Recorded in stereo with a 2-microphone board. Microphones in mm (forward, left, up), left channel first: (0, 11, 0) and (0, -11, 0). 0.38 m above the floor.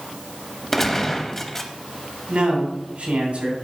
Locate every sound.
0.7 s a gunshot: 15° left (ahead or behind), 0.8 m
2.3 s a man speaking: 55° right (ahead or behind), 2.5 m